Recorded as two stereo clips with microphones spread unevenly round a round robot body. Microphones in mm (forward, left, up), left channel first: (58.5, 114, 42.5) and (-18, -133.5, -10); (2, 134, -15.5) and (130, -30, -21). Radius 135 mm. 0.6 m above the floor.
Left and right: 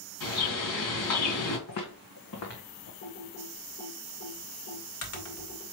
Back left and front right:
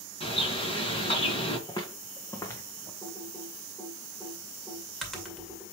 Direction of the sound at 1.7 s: 60° left.